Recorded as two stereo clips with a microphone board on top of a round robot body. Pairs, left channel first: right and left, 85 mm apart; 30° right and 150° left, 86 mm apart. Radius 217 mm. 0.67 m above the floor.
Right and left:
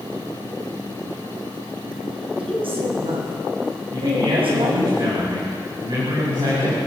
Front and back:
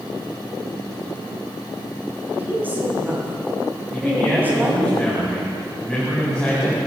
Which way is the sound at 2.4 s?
80° left.